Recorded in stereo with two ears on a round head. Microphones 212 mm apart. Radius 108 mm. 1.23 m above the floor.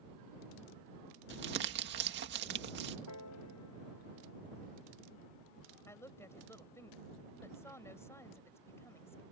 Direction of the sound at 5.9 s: 10° left (ahead or behind).